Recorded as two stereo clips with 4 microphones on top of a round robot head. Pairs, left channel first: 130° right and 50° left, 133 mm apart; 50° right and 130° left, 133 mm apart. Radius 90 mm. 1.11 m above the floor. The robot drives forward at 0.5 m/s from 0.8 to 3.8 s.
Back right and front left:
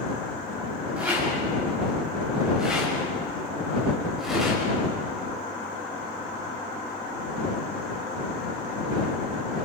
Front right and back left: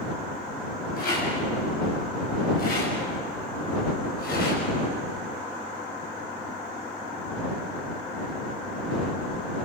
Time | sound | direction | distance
1.0 | a rattle | 30° right | 7 m